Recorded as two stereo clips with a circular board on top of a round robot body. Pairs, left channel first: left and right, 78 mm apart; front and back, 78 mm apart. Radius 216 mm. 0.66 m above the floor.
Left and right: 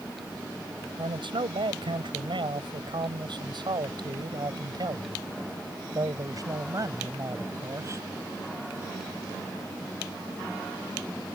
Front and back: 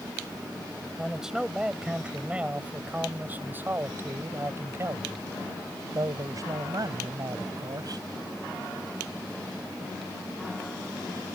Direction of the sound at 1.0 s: 95° right.